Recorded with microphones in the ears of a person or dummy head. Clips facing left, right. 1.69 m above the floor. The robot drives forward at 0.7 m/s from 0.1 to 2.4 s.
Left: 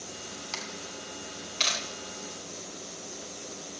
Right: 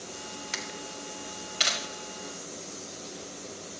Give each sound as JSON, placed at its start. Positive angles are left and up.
{"t": 0.5, "sound": "a camera shutter", "side_deg": -20, "distance_m": 0.8}